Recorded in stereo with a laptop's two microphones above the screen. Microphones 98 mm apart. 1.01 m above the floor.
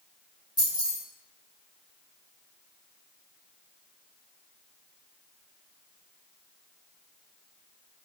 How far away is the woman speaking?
I don't hear a woman speaking.